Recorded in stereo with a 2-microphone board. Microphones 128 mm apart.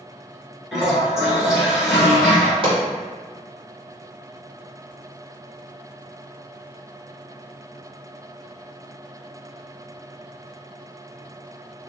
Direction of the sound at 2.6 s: 45° right (ahead or behind).